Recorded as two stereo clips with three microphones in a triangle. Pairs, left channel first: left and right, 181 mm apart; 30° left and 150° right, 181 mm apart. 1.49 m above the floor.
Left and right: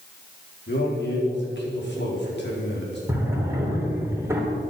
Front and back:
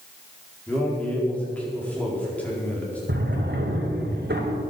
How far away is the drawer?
About 2.5 m.